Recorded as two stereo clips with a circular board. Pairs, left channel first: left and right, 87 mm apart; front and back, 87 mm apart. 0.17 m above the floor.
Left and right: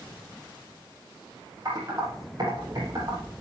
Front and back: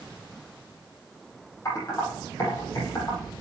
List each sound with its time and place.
1.6 s typing on a keyboard: 50° right, 7 m